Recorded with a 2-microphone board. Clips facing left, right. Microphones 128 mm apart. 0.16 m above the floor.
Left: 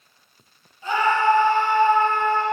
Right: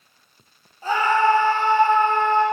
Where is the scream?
35° right (ahead or behind), 5 m; by 2.4 s 20° right (ahead or behind), 5.5 m.